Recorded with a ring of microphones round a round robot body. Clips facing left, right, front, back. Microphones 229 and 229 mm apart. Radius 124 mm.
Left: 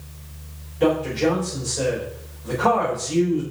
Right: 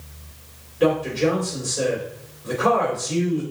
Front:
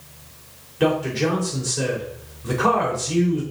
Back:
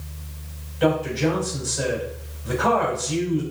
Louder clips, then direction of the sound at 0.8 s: Even, even; 5° right.